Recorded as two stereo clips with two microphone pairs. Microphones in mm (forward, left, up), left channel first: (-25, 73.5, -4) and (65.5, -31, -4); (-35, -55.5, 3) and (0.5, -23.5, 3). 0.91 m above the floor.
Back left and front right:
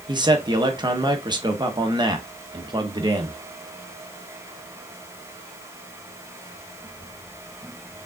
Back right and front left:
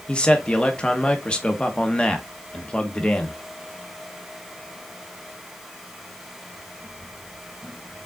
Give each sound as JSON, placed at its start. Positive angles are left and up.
{"t": 0.1, "sound": "a man speaking", "azimuth_deg": -85, "distance_m": 0.8}